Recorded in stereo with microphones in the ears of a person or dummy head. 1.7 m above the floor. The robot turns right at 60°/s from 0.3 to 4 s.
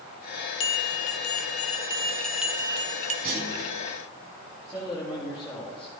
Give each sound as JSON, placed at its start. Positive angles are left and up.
{"t": 0.6, "sound": "a bell", "azimuth_deg": 75, "distance_m": 0.5}
{"t": 3.2, "sound": "a clunk", "side_deg": -35, "distance_m": 4.5}
{"t": 4.7, "sound": "a man speaking", "side_deg": 5, "distance_m": 4.5}